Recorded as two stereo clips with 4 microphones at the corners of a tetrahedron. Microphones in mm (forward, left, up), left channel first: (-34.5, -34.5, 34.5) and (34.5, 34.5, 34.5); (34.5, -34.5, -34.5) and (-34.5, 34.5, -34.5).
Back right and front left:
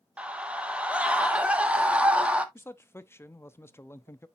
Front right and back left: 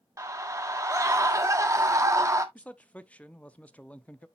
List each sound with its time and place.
0.2 s a scream: 115° left, 1.4 m
2.5 s a man speaking: 105° right, 0.6 m